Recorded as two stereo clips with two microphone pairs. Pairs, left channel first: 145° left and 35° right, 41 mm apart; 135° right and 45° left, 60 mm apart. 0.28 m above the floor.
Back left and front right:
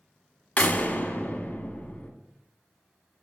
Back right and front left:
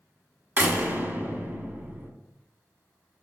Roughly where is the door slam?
Left.